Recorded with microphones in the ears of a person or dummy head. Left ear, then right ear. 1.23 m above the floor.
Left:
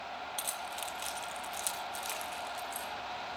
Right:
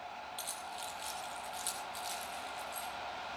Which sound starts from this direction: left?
Keys jangling, at 0.4 s.